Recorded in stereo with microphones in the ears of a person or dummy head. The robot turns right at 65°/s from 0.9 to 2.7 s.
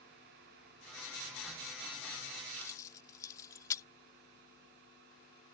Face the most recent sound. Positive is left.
turn(degrees=15)  # may be behind; listen again after turning